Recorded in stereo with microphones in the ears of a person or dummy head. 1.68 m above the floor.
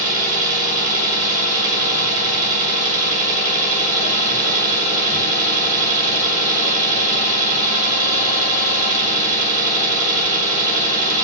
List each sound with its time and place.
0.0 s an engine running: 40° right (ahead or behind), 1.3 m